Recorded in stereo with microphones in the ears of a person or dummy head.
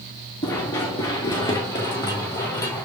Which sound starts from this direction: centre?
Running footsteps, at 0.4 s.